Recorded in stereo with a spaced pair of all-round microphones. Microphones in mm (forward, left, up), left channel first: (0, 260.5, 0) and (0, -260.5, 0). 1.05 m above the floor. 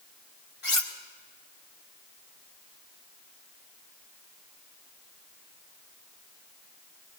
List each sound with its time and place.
0.6 s cutlery clinking: 70° left (ahead or behind), 1.7 m